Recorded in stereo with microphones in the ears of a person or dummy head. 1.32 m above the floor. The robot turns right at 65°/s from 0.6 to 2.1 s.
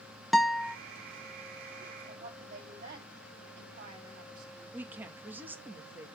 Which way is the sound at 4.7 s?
15° right (ahead or behind).